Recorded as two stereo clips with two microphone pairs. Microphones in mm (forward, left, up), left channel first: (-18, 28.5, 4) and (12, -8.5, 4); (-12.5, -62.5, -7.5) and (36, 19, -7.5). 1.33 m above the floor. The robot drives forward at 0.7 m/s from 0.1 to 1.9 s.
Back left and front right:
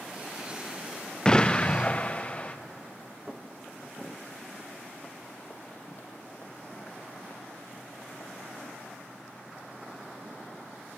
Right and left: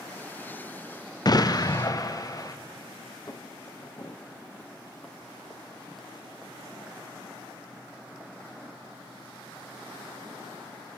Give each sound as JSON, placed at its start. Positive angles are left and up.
{"t": 1.2, "sound": "an explosion", "azimuth_deg": -160, "distance_m": 0.5}
{"t": 3.3, "sound": "footsteps", "azimuth_deg": -110, "distance_m": 1.7}